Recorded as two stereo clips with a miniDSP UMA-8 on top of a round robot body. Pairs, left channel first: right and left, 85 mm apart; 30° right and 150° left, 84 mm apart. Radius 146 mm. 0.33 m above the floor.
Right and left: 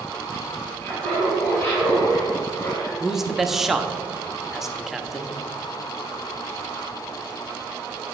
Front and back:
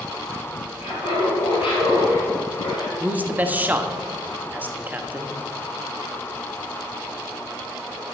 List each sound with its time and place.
0.8 s laughter: 15° right, 2.5 m; by 2.9 s 35° right, 3.5 m
3.0 s a man speaking: 170° left, 1.0 m